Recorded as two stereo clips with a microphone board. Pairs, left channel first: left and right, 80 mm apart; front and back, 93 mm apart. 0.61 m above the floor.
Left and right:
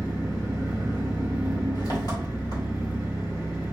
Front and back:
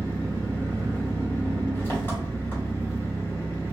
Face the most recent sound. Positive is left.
turn(degrees=65)